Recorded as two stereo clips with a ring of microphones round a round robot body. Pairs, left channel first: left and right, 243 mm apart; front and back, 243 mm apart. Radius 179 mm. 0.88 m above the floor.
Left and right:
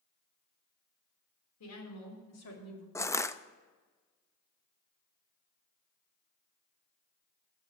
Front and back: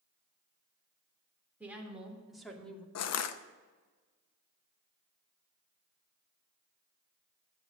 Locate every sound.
1.6 s a woman speaking: 95° left, 3 m; by 2.9 s 85° left, 2 m
3.0 s crushing: 10° left, 0.7 m